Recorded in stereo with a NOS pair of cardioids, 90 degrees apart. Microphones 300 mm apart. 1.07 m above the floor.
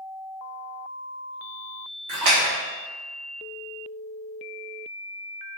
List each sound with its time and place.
2.1 s a splash: 65° right, 1.6 m